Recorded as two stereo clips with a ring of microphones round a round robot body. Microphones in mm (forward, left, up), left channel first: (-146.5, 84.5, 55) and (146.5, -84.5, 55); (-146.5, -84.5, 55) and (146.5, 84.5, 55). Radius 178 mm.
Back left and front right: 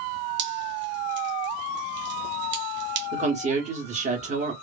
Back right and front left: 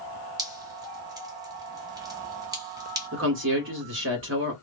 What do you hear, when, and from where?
0.4 s dripping: 40° right, 1.1 m
3.1 s a woman speaking: 25° left, 1.5 m